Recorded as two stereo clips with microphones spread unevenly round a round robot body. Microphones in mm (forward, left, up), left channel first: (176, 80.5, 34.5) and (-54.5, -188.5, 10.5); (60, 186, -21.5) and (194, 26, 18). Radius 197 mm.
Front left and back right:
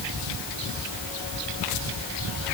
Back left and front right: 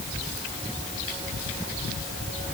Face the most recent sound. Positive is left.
No sound to turn to.